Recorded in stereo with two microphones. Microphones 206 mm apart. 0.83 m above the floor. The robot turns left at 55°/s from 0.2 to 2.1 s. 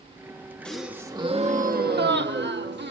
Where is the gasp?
5° left, 1.4 m; by 2.9 s 75° right, 1.4 m.